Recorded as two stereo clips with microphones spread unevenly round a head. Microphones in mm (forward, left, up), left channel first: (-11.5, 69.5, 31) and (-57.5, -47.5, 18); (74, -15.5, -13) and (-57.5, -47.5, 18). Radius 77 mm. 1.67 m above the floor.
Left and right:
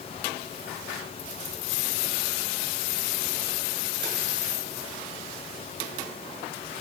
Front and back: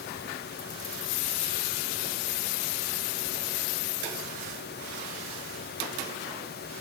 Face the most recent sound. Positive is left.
No sound to turn to.